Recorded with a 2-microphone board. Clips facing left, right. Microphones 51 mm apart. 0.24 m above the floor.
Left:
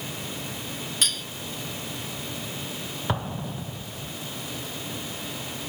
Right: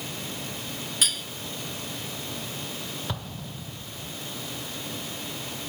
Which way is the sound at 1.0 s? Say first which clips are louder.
Even; 5° right (ahead or behind).